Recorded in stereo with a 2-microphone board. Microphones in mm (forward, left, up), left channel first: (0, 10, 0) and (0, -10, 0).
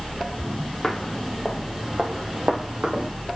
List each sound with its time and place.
0.8 s footsteps: 35° left (ahead or behind), 1.6 m; by 3.1 s 50° right (ahead or behind), 2.5 m